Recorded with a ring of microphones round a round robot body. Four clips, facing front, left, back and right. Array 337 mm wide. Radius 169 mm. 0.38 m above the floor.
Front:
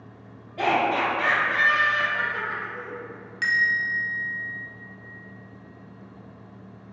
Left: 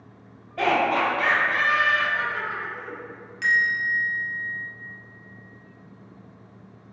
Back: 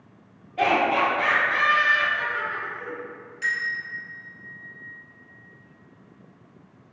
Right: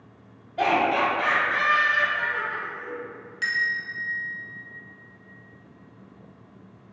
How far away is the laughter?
About 1.4 m.